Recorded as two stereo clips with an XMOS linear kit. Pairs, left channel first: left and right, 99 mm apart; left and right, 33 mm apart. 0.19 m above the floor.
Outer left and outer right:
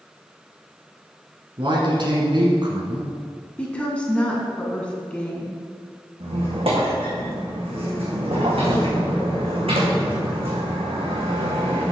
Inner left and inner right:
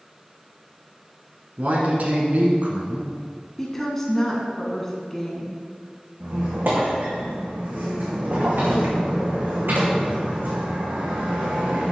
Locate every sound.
1.6 s a man speaking: 55° right (ahead or behind), 1.8 m
3.6 s a woman speaking: 10° left (ahead or behind), 1.8 m
6.2 s a squeak: 80° right, 3 m